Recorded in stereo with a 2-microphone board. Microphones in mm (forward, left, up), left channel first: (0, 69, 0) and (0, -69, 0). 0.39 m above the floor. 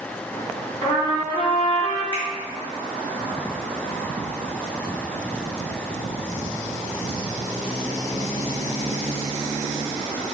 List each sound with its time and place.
0.8 s a trumpet: 35° left (ahead or behind), 1.9 m
2.1 s a finger snap: 30° left (ahead or behind), 0.7 m